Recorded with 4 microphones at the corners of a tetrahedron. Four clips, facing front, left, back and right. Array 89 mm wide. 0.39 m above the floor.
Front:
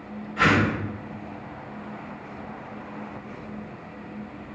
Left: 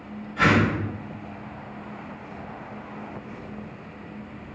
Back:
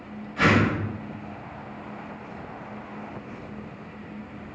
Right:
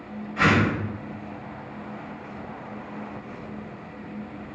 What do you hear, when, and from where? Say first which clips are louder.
0.4 s a whoosh: left 1 dB, even; 95° right, 2.0 m